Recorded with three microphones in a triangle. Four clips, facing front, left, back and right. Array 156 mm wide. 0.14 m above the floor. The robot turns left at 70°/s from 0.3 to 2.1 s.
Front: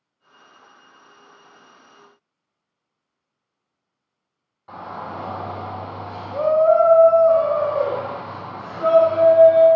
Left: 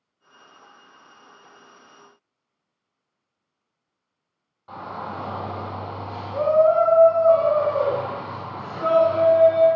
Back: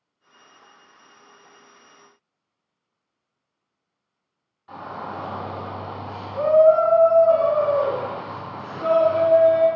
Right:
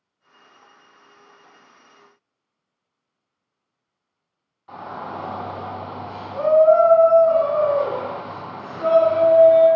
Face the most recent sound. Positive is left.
turn(degrees=25)